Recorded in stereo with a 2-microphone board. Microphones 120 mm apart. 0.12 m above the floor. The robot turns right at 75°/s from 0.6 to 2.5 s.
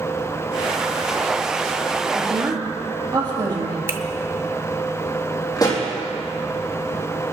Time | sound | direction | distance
2.1 | a woman speaking | 15° right (ahead or behind) | 3 m
3.9 | a finger snap | 20° right (ahead or behind) | 0.9 m
5.6 | a pop | 30° left (ahead or behind) | 3 m